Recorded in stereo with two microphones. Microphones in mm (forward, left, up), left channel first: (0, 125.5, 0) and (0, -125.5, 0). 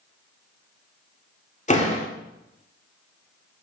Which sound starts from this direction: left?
A door slam, at 1.7 s.